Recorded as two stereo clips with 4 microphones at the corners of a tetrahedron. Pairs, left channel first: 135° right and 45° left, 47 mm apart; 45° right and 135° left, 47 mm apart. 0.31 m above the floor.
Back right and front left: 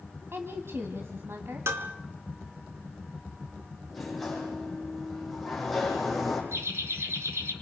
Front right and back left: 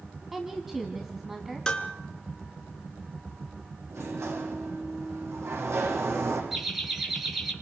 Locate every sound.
0.3 s a woman speaking: 55° left, 2 m
1.7 s dishes clattering: 30° left, 3 m
3.9 s a sliding door: 135° left, 9 m
6.5 s laughter: 50° left, 6 m